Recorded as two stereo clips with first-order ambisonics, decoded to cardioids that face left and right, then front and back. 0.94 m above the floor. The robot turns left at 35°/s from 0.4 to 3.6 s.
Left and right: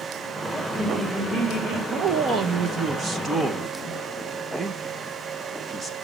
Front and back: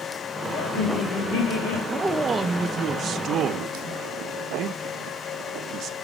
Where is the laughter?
15° left, 4 m; by 1.8 s 30° right, 4 m.